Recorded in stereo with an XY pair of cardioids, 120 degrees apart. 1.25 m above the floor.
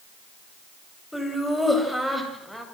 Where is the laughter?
5° left, 8.5 m; by 2.6 s straight ahead, 8 m.